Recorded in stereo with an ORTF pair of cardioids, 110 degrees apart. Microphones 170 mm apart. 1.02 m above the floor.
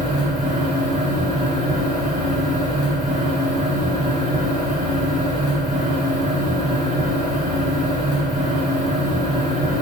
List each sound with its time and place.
0.0 s a fan: 50° right, 1.2 m